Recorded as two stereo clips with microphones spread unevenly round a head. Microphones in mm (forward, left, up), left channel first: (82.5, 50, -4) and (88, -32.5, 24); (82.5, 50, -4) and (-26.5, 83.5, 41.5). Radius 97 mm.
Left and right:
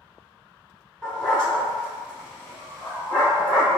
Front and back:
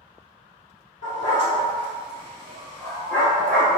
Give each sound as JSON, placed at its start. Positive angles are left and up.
{"t": 1.0, "sound": "a dog barking", "azimuth_deg": 0, "distance_m": 1.3}